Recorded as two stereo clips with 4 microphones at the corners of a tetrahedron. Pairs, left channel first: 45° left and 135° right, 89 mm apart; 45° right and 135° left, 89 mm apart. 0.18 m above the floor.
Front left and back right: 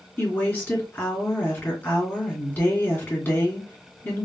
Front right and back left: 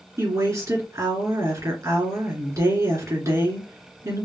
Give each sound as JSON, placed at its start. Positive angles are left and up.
{"t": 0.2, "sound": "a woman speaking", "azimuth_deg": 105, "distance_m": 2.0}